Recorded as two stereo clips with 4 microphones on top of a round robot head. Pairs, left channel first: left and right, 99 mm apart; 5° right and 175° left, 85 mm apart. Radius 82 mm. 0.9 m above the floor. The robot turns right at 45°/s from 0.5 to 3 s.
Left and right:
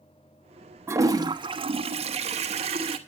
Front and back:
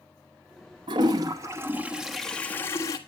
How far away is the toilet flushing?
About 1.0 m.